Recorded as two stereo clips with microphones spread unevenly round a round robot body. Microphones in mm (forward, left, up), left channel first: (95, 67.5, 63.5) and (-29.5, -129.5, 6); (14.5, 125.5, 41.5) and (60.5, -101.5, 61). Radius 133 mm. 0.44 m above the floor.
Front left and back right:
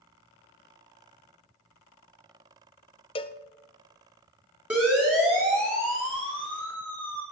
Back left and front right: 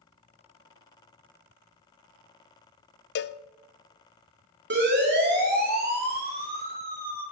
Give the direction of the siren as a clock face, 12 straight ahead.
1 o'clock.